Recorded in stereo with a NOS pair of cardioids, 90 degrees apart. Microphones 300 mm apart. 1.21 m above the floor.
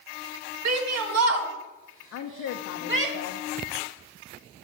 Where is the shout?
65° right, 1.6 m; by 3.1 s 40° right, 2.5 m.